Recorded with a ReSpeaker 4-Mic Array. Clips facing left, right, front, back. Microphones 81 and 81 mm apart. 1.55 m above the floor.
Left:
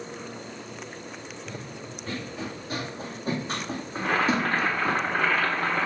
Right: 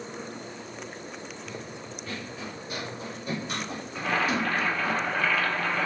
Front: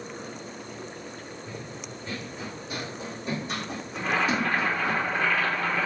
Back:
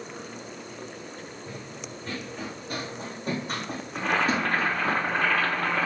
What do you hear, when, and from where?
1.5 s running footsteps: 145° left, 4 m; by 5.0 s 135° left, 2.5 m
4.0 s boiling: 145° left, 2.5 m